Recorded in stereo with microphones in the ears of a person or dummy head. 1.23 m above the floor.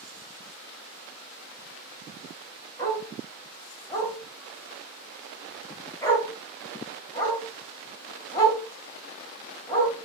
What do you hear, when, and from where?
2.8 s a dog barking: 15° left (ahead or behind), 2 m